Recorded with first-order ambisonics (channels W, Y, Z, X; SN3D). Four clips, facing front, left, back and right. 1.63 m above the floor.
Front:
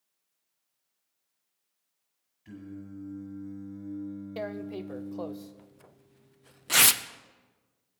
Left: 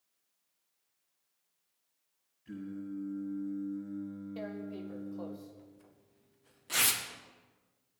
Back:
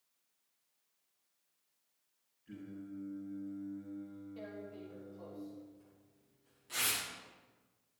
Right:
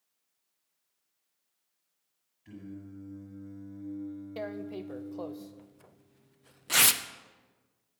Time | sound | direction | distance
2.5 | singing | 20° right | 8 m
4.4 | tearing paper | 25° right | 0.7 m